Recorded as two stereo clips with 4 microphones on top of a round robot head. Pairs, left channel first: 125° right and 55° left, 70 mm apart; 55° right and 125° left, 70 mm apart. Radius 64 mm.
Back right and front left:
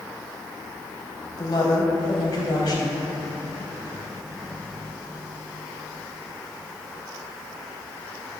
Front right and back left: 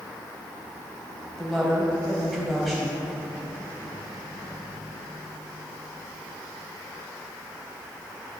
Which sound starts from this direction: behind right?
A woman speaking, at 1.4 s.